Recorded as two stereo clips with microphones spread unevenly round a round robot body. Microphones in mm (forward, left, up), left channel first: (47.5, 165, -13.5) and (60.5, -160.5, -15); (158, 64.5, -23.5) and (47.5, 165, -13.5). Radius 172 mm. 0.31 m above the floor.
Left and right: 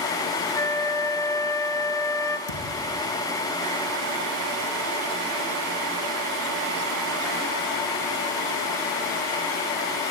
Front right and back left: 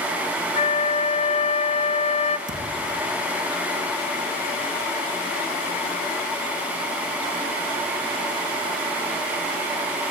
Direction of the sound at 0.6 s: 10° left.